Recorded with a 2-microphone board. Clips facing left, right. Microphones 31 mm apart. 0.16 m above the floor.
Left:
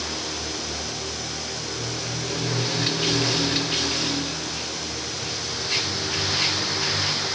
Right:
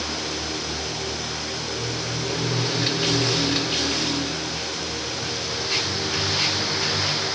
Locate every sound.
Only background noise.